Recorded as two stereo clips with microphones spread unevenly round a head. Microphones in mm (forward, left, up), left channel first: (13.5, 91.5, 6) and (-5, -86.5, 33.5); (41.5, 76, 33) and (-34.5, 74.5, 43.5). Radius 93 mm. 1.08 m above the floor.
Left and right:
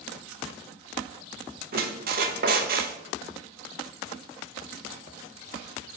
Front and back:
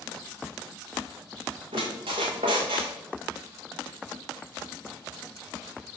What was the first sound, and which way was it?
A squeak, 140° right.